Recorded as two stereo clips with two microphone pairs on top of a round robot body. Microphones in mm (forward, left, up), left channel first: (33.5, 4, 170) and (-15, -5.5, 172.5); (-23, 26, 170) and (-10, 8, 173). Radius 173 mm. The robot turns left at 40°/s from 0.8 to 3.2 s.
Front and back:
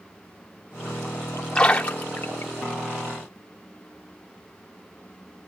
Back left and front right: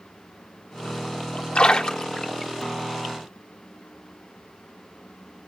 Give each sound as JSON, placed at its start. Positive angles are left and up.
{"t": 1.6, "sound": "a splash", "azimuth_deg": 85, "distance_m": 0.5}